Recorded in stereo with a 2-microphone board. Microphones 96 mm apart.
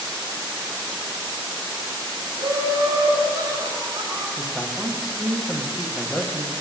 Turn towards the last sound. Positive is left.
turn(degrees=-5)  # may be behind; listen again after turning